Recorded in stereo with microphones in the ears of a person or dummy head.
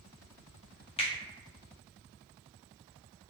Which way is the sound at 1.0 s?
25° left (ahead or behind).